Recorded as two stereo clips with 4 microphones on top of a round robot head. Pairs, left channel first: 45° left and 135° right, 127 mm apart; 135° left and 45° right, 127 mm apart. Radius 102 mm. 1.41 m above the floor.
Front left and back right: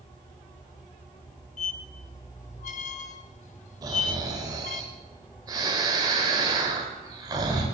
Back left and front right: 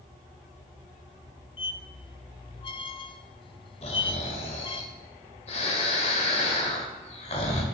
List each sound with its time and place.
1.6 s a squeak: 80° left, 0.5 m
3.8 s snoring: 170° left, 1.5 m